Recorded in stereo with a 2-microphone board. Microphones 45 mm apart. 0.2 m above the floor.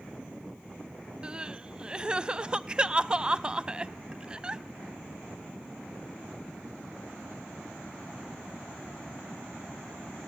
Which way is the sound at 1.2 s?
20° right (ahead or behind).